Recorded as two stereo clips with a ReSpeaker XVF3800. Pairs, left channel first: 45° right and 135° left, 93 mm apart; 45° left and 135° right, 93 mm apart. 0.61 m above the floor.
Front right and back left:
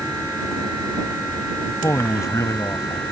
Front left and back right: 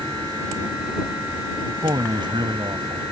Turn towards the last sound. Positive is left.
turn(degrees=-100)